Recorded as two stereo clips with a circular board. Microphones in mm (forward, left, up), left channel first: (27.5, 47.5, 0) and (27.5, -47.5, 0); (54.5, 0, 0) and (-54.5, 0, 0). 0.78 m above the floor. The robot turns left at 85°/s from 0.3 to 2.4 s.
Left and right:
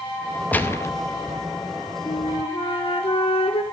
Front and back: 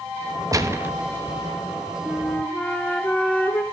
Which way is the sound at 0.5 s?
155° left.